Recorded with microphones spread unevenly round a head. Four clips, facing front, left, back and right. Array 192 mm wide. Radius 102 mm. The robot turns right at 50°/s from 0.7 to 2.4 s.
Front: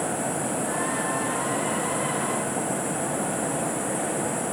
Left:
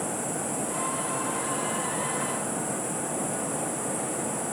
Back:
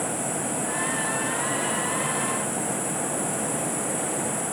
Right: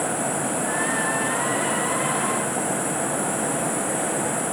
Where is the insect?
80° left, 1.1 m; by 4.5 s 165° left, 1.1 m.